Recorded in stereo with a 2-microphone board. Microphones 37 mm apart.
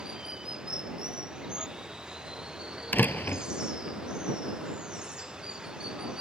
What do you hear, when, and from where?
0.0 s running water: 20° right (ahead or behind)
2.9 s a door slam: 65° left (ahead or behind)